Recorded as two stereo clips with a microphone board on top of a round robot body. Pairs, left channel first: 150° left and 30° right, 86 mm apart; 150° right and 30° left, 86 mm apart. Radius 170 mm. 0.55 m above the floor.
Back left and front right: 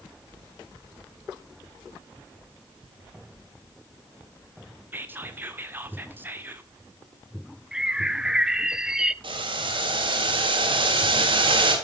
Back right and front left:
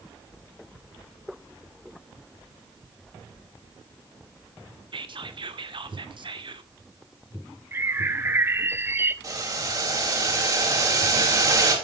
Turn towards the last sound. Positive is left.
turn(degrees=-15)